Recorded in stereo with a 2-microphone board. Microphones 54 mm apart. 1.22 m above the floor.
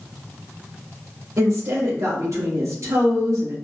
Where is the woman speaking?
75° right (ahead or behind), 1.6 m.